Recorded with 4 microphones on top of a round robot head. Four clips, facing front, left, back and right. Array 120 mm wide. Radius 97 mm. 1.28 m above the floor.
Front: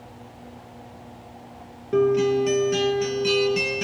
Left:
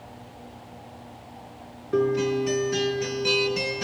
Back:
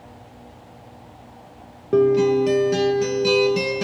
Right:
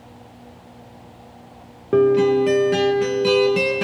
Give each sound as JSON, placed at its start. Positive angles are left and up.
{"t": 1.9, "sound": "a guitar", "azimuth_deg": -120, "distance_m": 0.8}